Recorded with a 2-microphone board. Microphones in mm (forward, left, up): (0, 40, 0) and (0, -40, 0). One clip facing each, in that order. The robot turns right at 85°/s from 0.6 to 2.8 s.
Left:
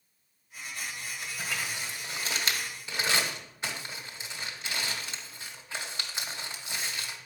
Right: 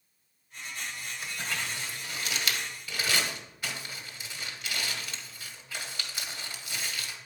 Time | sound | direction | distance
1.2 | crumpling | 5° right (ahead or behind) | 1.8 m